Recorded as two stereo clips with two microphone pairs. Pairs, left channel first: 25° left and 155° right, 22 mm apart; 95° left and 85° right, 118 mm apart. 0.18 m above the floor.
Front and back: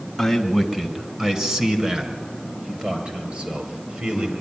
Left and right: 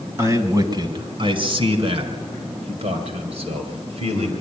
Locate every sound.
0.2 s a man speaking: 70° right, 1.7 m; by 4.3 s 125° right, 4.5 m